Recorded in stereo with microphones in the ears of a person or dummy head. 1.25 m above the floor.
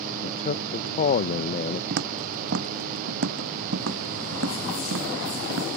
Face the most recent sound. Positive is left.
turn(degrees=-80)